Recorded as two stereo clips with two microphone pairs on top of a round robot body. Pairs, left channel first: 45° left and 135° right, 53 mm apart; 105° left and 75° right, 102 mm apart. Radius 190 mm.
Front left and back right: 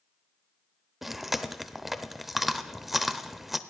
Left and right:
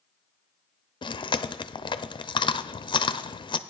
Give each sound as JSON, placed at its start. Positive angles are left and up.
{"t": 1.0, "sound": "chewing", "azimuth_deg": 140, "distance_m": 0.6}